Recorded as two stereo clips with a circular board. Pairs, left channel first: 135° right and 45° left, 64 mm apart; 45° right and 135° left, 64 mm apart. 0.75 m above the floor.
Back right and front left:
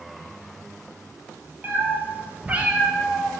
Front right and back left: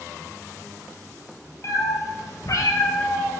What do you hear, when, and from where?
1.6 s a cat meowing: 10° right, 1.8 m; by 3.3 s 40° right, 1.4 m